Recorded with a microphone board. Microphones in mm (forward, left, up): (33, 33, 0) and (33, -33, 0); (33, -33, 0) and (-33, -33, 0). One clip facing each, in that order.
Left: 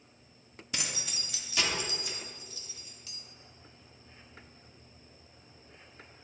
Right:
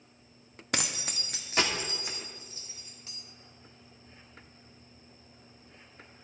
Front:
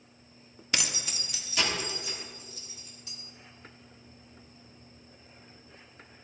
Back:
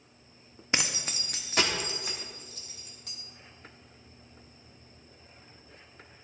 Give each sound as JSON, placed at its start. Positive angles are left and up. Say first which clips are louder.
{"t": 0.7, "sound": "keys jangling", "louder": "right 5 dB, back 2 dB", "azimuth_deg": -115, "distance_m": 0.7}